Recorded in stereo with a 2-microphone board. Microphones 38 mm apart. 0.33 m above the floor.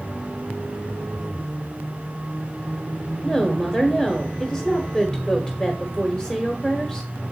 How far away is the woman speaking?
About 1.1 m.